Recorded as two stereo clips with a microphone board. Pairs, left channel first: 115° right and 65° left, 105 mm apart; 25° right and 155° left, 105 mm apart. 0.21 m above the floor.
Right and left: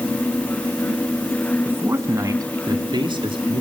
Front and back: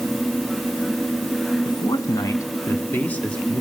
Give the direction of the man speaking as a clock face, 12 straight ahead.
12 o'clock.